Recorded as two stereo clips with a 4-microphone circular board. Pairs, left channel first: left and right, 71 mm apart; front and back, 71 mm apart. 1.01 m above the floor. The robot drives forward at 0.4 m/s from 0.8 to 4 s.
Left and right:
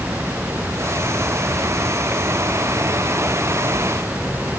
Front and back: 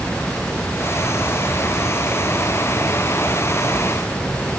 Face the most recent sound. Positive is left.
No sound to turn to.